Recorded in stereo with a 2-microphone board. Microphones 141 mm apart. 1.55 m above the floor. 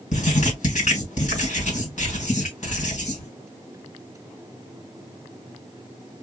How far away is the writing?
About 2.5 m.